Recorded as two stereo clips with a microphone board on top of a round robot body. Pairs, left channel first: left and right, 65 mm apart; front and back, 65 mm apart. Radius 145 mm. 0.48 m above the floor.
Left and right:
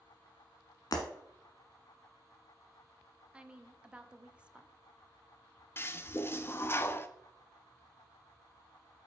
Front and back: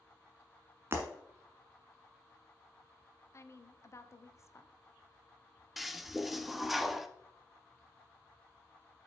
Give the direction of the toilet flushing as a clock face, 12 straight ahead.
9 o'clock.